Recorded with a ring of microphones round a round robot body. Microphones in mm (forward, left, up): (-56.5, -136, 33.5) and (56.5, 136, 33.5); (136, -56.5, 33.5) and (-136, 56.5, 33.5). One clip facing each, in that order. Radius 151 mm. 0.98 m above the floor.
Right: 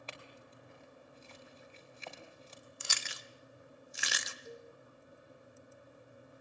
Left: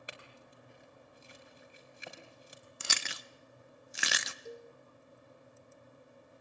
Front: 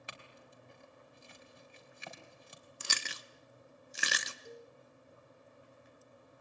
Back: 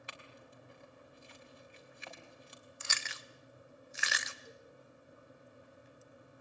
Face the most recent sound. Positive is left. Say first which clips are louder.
# left 4 dB, front 5 dB
turn(degrees=5)